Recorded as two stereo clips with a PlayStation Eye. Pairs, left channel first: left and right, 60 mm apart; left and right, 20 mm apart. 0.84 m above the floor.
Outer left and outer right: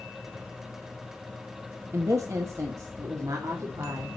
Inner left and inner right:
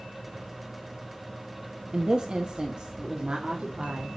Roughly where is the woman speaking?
Right.